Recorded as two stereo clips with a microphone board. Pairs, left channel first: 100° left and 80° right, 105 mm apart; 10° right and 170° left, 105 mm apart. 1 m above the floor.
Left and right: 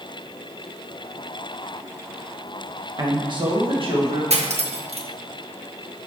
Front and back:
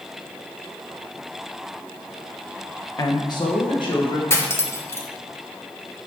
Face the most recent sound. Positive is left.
turn(degrees=-80)